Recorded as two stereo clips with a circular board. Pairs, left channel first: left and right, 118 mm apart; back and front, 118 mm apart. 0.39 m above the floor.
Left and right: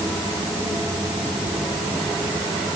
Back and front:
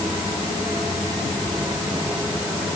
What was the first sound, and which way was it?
Only background noise.